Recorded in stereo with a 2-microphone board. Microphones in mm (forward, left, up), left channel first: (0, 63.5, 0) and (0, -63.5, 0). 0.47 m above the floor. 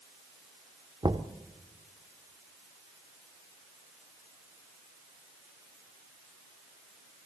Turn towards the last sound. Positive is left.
turn(degrees=-35)  # may be behind; listen again after turning